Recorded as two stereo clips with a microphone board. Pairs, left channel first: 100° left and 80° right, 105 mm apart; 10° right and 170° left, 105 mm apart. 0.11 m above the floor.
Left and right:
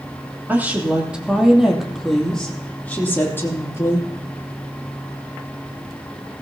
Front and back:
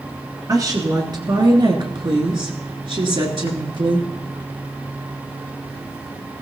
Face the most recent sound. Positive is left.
turn(degrees=155)